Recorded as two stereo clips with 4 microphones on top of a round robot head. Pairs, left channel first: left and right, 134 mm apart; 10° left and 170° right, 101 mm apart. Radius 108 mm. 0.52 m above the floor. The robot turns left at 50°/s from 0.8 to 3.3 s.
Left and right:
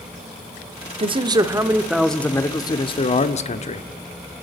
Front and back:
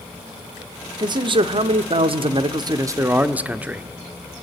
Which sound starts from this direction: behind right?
A man speaking, at 1.0 s.